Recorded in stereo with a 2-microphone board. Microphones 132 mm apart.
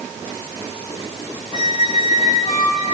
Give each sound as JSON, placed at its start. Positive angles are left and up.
{"t": 1.5, "sound": "a squeak", "side_deg": 55, "distance_m": 1.6}